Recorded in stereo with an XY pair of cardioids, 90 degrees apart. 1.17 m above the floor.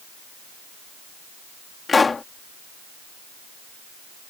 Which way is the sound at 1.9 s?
35° left.